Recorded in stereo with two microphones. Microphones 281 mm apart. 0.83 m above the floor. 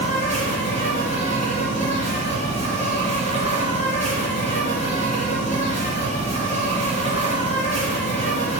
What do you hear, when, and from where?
0.0 s an insect: 25° right (ahead or behind), 2.5 m